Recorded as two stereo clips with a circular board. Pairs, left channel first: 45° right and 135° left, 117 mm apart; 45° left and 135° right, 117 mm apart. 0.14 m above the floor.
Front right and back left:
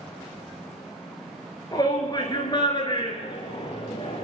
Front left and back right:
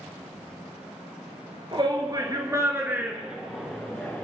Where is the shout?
95° right, 2.5 m; by 4.2 s 25° right, 2 m.